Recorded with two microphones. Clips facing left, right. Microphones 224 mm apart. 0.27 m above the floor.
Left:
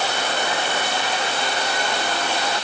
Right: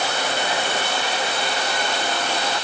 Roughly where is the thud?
I don't hear a thud.